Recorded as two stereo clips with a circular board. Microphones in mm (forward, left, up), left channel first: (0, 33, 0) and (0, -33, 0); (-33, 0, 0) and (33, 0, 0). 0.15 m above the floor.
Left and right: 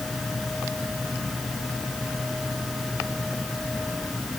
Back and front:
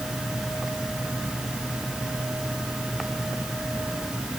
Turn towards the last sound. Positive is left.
No sound to turn to.